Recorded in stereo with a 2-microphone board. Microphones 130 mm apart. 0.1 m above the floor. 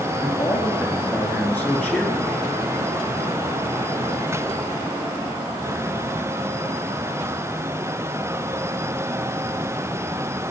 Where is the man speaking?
10° left (ahead or behind), 1.7 m.